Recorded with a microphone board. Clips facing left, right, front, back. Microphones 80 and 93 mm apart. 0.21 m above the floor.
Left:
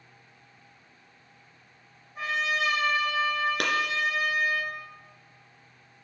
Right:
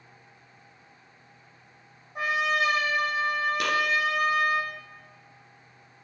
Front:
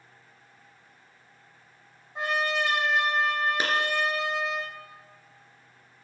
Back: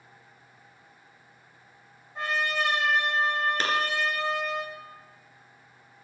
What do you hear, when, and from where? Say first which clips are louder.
2.1 s a trumpet: right 3 dB, front 1 dB; 70° right, 4.5 m
3.6 s a clap: right 1 dB, even; 75° left, 2.5 m